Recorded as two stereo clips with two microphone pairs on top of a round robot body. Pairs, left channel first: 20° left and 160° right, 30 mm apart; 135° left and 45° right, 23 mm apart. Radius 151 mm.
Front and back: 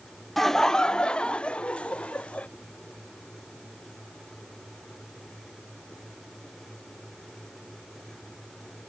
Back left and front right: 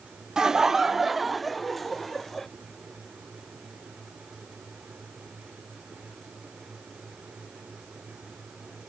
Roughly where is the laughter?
Ahead right.